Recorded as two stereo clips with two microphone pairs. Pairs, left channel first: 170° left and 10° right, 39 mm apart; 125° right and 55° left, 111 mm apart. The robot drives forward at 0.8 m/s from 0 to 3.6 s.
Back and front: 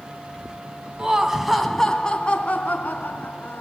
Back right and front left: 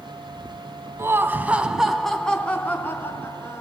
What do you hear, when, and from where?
1.0 s laughter: 25° left, 1.1 m; by 3.6 s 170° left, 1.9 m